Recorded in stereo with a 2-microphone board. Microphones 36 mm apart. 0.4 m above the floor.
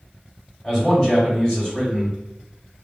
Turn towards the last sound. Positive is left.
turn(degrees=20)  # may be behind; listen again after turning